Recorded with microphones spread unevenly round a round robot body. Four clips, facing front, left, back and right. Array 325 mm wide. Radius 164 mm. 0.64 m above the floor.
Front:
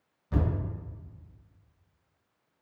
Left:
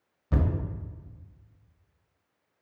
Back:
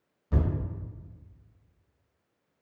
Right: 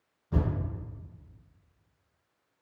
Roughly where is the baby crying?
I don't hear a baby crying.